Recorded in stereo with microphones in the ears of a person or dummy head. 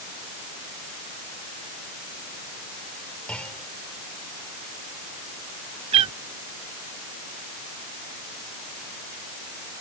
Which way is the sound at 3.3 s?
5° left (ahead or behind).